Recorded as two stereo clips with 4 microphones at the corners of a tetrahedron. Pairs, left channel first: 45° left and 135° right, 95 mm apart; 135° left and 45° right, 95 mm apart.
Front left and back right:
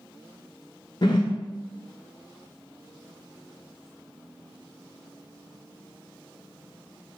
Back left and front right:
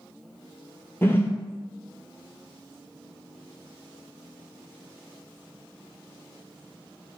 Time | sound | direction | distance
1.0 | a whoosh | 70° left | 0.5 m